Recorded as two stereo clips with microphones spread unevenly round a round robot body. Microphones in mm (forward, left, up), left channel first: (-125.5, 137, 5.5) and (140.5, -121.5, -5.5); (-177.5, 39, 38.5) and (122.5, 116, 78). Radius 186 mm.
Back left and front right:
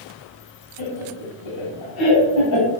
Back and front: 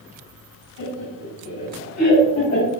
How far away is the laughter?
About 3.5 m.